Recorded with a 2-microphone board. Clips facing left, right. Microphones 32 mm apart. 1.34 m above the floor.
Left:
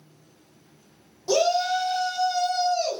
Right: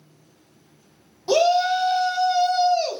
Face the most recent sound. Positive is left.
turn(degrees=-25)  # may be behind; listen again after turning